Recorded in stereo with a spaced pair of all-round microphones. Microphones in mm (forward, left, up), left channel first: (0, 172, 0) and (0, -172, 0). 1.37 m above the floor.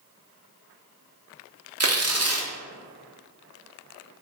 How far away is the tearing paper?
About 0.6 m.